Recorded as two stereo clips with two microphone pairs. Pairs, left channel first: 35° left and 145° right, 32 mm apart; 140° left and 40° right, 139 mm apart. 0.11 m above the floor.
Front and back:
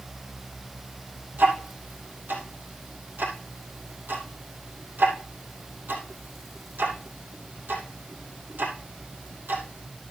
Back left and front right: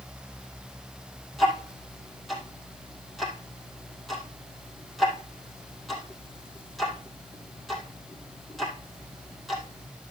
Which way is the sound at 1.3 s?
130° right.